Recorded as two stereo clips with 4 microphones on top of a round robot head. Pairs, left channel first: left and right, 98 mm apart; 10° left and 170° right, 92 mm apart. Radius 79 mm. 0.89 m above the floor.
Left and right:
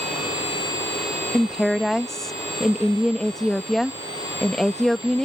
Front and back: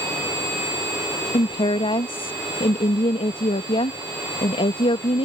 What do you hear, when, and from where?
1.3 s a woman speaking: 5° left